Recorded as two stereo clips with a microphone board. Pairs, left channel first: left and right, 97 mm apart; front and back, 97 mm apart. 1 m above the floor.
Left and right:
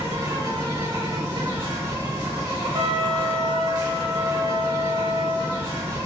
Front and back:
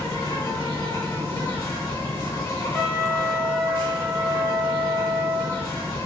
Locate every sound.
0.0 s an insect: 55° right, 2.0 m
2.7 s a trumpet: 90° right, 1.6 m